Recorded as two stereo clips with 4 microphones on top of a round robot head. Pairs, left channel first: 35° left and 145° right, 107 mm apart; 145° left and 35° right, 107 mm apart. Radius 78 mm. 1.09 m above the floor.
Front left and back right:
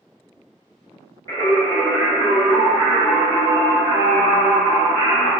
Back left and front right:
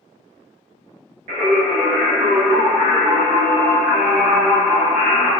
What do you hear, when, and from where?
1.3 s singing: 25° right, 1.8 m